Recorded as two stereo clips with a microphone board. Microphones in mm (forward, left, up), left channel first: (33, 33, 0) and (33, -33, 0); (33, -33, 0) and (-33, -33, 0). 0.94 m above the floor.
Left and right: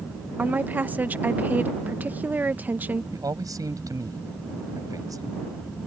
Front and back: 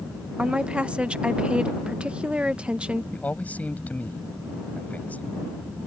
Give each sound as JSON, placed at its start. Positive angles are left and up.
{"t": 0.4, "sound": "a woman speaking", "azimuth_deg": -120}
{"t": 3.1, "sound": "a man speaking", "azimuth_deg": -65}